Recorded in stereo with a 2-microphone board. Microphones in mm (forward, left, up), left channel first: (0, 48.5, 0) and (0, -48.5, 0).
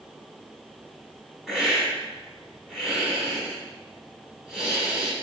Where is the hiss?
5° right (ahead or behind), 1.3 m.